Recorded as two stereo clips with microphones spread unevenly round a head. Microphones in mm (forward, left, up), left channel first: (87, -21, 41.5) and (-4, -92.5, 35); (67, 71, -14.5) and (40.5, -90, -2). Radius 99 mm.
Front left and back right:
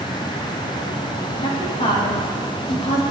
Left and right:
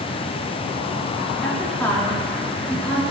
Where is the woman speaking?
Straight ahead, 1.8 m.